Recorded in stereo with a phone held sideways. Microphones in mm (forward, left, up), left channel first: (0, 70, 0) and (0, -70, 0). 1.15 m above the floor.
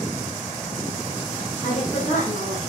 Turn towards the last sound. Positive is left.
turn(degrees=55)  # may be behind; listen again after turning